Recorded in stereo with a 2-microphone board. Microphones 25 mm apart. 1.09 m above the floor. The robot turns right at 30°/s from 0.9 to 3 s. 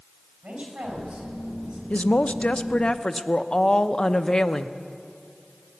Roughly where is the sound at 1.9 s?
Behind left.